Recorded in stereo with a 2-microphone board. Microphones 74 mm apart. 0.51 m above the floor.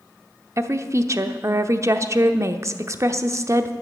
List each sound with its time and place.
0.6 s a woman speaking: 40° right (ahead or behind), 0.8 m